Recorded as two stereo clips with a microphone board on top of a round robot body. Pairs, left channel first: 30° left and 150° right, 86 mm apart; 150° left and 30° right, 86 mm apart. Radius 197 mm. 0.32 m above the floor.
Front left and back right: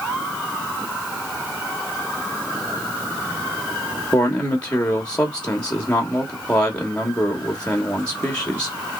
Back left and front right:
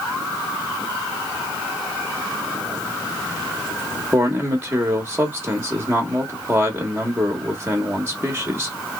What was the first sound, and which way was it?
A man speaking, 25° right.